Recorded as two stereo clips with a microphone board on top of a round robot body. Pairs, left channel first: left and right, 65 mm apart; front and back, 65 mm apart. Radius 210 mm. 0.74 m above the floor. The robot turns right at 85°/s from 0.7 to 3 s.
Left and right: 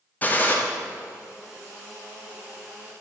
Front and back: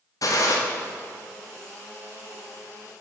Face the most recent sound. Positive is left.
turn(degrees=-140)